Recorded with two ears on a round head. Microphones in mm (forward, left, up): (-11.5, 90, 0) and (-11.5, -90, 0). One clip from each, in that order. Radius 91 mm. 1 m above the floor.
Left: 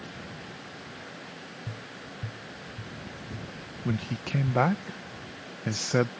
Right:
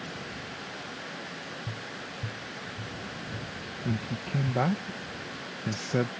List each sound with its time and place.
1.7 s tapping: 85° left
3.9 s a man speaking: 35° left (ahead or behind)